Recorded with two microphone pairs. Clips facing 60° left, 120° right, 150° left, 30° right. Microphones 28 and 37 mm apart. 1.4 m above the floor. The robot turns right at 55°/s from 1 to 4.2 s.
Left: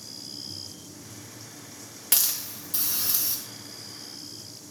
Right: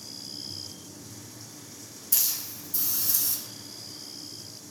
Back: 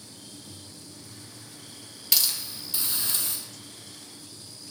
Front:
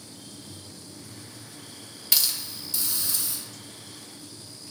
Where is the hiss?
55° left, 2 m; by 3.4 s 125° left, 2 m.